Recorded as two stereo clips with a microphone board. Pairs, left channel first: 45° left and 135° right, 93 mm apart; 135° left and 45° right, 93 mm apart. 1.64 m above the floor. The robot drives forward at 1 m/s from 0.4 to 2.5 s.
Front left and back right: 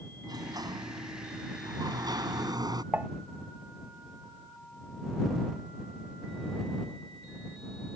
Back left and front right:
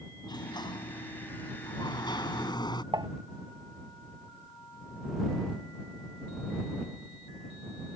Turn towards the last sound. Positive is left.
turn(degrees=-70)